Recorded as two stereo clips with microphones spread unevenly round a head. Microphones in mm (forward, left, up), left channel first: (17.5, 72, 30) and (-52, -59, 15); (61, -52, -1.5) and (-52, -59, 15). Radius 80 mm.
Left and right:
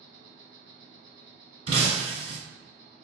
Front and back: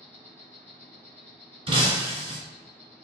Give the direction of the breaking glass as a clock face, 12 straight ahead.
6 o'clock.